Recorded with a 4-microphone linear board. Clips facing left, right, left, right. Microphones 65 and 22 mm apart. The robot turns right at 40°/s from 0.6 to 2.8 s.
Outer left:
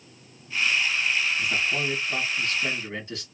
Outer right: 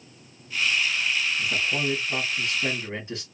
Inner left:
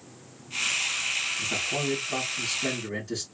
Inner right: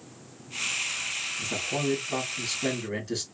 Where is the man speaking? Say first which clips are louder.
Even, inner left 1 dB; 165° left, 1.5 m; by 3.2 s 140° right, 1.5 m.